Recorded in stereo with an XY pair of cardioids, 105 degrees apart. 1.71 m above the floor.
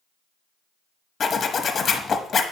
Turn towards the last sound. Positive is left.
turn(degrees=45)